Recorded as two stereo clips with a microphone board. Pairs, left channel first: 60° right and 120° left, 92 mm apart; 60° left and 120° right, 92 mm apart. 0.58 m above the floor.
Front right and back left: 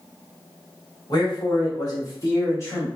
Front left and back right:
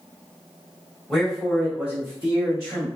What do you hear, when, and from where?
1.1 s a man speaking: 25° right, 1.2 m; by 2.9 s 120° right, 1.1 m